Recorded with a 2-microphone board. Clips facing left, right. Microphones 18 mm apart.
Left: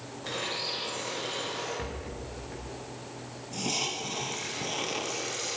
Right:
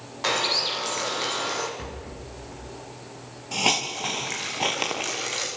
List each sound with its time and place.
0.2 s a bird: 70° right (ahead or behind), 4 m
1.8 s a rattle: 5° left (ahead or behind), 5.5 m
3.5 s a hiss: 55° right (ahead or behind), 5.5 m